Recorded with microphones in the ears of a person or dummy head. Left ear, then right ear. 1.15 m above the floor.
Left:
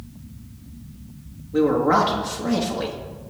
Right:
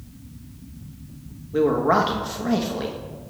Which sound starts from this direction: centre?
A man speaking, at 1.5 s.